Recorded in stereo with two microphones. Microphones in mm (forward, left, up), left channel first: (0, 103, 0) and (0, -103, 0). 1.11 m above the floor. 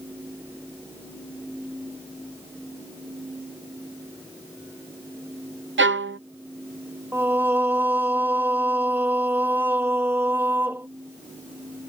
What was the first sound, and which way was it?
A violin, 70° right (ahead or behind).